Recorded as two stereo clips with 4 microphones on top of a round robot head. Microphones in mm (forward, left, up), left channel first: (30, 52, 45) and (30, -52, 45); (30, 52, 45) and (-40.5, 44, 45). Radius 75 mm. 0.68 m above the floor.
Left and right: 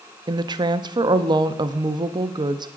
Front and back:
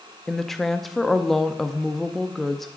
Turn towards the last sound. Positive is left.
turn(degrees=-80)